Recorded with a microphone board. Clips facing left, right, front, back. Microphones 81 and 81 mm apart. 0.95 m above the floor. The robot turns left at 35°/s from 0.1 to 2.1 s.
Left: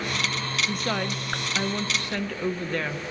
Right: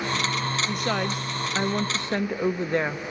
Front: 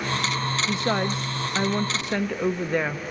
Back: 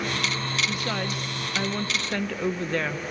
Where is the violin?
I don't hear a violin.